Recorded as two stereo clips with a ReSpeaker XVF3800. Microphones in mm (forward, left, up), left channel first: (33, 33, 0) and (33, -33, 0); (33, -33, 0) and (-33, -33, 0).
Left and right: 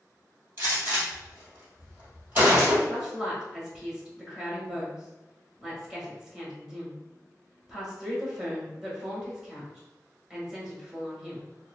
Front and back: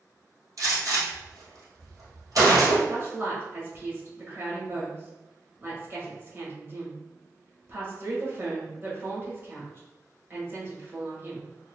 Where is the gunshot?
145° right, 1.7 m.